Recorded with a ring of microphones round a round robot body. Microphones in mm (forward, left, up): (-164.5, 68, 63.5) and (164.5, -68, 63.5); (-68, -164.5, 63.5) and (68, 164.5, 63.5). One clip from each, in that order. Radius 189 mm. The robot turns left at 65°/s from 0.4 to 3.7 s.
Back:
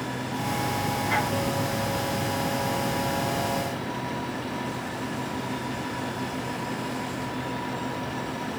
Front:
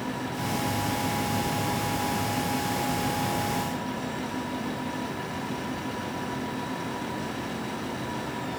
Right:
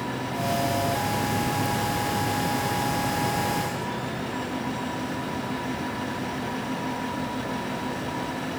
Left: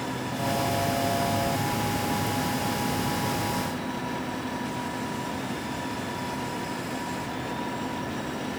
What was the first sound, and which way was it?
Only background noise.